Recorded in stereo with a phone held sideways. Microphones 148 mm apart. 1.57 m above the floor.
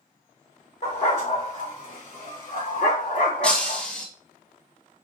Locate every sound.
0.8 s a dog barking: 50° left (ahead or behind), 1.9 m; by 3.8 s 70° left (ahead or behind), 3.5 m
3.4 s breaking glass: 5° left (ahead or behind), 1.1 m